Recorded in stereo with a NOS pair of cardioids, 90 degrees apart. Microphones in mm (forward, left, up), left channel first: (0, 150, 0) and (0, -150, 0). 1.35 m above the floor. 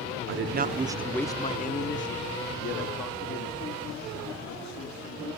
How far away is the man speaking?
About 0.7 m.